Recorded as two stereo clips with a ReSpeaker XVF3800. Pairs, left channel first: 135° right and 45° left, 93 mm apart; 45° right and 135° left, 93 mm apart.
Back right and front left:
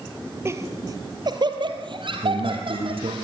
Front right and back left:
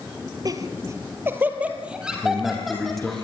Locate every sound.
0.5 s laughter: 100° left, 1.8 m; by 3.2 s 40° left, 3.5 m
2.2 s a man speaking: 40° left, 5.5 m